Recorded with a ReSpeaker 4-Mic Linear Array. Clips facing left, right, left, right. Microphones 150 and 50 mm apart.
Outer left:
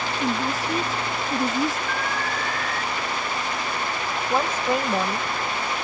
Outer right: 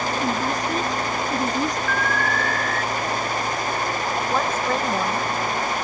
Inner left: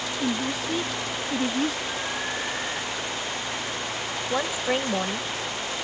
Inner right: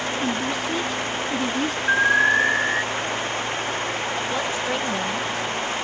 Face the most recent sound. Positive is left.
turn(degrees=10)  # may be behind; listen again after turning